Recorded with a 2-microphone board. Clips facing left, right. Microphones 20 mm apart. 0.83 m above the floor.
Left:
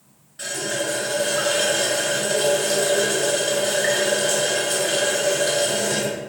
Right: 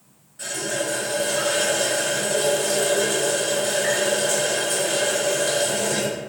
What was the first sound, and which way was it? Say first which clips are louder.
A running tap: left 1 dB; 45° left (ahead or behind).